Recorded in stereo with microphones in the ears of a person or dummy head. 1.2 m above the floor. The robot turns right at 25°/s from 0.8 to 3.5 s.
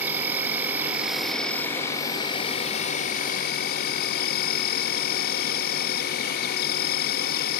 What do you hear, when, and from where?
0.0 s an insect: 10° right; by 7.6 s 55° left